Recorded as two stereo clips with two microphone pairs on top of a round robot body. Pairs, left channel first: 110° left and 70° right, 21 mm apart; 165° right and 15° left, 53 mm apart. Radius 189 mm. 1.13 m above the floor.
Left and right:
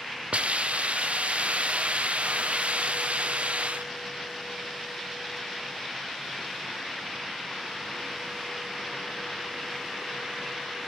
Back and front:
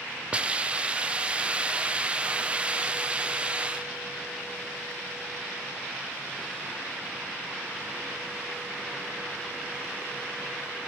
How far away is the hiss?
About 0.6 m.